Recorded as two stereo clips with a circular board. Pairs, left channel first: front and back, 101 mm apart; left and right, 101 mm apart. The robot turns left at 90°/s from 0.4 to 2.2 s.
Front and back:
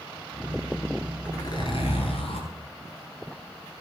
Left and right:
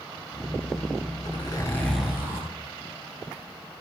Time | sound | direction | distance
1.2 | a zipper | 60° left | 7 m